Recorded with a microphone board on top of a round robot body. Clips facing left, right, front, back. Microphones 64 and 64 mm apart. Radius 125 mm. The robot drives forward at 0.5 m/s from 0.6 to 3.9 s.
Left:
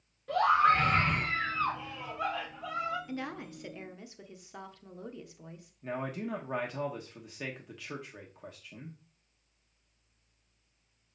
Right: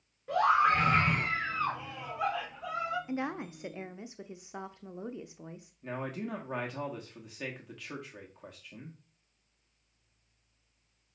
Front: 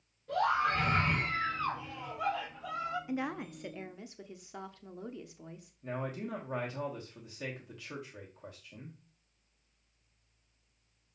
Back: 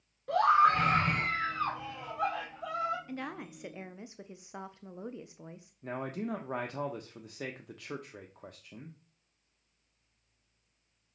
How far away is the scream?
About 3 m.